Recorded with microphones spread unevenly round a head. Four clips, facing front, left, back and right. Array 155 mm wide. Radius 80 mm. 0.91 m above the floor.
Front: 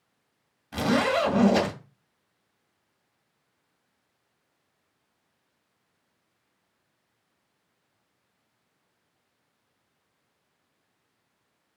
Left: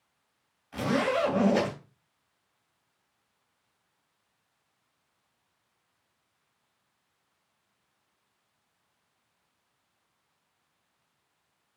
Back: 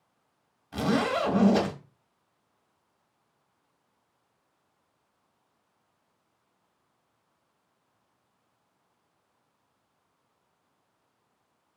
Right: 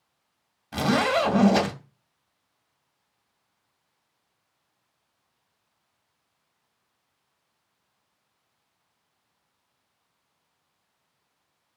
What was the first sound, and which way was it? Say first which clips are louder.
A zipper: right 4 dB, front 2 dB; 70° right.